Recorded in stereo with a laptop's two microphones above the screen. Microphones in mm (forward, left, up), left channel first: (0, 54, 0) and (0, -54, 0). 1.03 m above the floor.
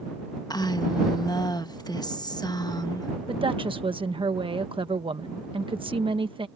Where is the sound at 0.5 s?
35° left (ahead or behind).